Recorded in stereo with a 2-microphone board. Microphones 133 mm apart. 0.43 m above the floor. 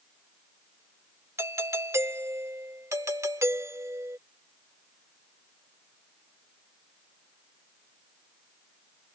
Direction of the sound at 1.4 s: 20° right (ahead or behind).